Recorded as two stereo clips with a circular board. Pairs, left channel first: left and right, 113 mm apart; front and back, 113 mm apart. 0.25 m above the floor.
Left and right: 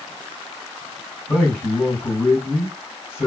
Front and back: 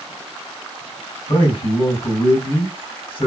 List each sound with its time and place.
1.3 s a man speaking: 25° left, 3 m